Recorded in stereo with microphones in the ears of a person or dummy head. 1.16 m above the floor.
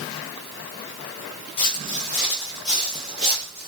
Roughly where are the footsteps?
Left.